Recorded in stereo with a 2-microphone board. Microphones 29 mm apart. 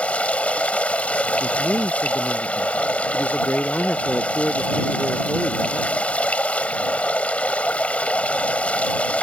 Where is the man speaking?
75° left (ahead or behind).